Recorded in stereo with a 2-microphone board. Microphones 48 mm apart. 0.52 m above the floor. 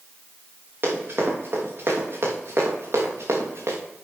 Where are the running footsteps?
45° right (ahead or behind), 4.5 m; by 3.8 s 60° right (ahead or behind), 3 m.